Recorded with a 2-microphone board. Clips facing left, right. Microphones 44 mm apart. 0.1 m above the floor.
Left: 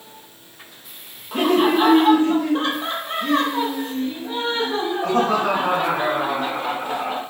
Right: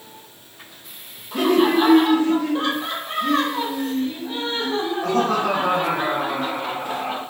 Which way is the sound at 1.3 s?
35° left (ahead or behind).